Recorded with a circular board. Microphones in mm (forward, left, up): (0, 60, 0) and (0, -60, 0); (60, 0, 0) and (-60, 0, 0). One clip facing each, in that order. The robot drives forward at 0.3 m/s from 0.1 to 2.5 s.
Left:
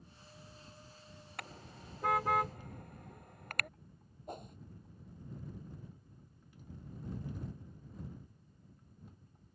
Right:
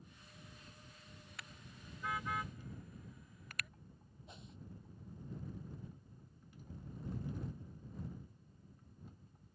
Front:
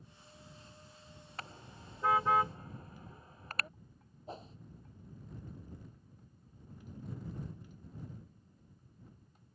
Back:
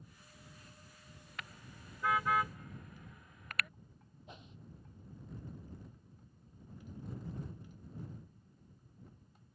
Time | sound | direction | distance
1.4 | a car horn | 55° left | ?
4.3 | a whoosh | 55° left | ?